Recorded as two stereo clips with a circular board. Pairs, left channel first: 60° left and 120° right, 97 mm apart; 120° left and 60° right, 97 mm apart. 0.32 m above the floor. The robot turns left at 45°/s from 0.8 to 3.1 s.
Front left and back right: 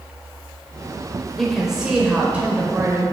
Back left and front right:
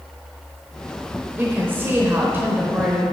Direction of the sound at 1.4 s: 30° right.